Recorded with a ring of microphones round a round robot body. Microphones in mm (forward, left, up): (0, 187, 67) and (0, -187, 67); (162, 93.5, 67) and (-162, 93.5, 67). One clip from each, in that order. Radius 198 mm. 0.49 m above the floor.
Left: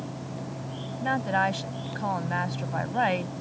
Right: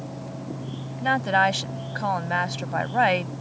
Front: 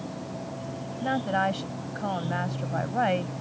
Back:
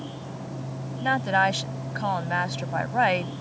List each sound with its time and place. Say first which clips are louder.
1.0 s a woman speaking: right 5 dB, back 4 dB; 140° right